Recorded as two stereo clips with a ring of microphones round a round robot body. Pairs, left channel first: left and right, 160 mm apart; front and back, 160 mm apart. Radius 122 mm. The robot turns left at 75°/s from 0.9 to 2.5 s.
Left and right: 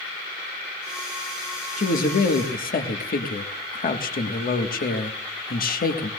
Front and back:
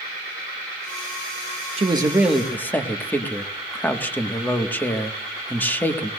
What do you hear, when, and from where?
1.8 s a man speaking: 130° left, 1.7 m; by 6.1 s 80° left, 1.7 m